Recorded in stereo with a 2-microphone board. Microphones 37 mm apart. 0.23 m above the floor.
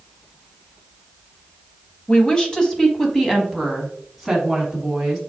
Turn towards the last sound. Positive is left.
turn(degrees=-10)  # may be behind; listen again after turning